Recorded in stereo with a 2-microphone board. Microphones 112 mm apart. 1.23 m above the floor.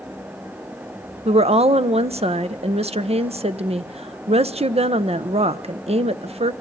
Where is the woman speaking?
65° right (ahead or behind), 0.7 m.